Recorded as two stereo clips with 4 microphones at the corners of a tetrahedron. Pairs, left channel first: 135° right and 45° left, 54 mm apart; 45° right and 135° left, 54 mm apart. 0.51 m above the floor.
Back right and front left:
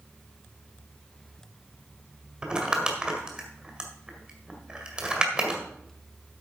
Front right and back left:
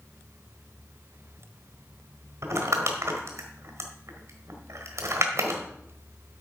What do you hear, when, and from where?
2.4 s crumpling: 115° left, 2.0 m